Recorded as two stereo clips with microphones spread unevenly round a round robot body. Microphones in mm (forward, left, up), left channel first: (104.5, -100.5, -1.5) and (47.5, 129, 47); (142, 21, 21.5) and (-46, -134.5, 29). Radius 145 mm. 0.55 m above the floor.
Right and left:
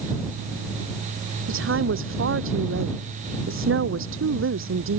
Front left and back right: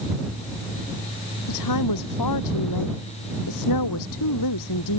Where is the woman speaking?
65° left.